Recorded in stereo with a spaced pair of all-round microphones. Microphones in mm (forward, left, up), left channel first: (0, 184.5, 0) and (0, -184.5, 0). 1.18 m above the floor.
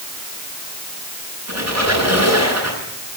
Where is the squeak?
45° right (ahead or behind), 10 m.